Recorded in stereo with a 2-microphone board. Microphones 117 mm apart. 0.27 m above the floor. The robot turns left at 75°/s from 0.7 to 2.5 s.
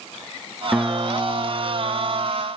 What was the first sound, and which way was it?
A guitar, 5° right.